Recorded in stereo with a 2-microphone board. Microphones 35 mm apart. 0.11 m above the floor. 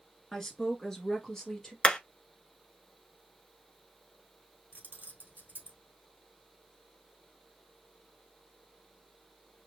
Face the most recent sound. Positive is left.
turn(degrees=-50)  # may be behind; listen again after turning